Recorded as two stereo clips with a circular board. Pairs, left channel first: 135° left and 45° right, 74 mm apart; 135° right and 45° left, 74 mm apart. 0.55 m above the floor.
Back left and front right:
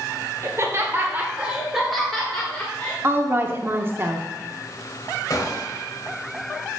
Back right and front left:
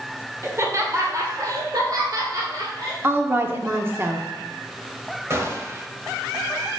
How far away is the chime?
I don't hear a chime.